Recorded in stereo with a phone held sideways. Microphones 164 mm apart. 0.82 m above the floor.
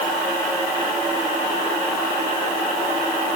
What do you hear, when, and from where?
Only background noise.